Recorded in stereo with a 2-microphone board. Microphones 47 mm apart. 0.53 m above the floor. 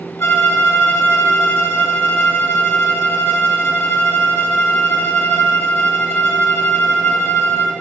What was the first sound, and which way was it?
A violin, 60° left (ahead or behind).